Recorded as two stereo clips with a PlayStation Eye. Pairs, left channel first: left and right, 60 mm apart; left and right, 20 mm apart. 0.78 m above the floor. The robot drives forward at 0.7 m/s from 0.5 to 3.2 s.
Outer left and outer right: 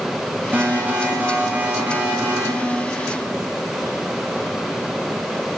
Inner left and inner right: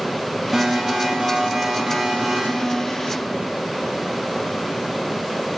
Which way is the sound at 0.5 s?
30° right (ahead or behind).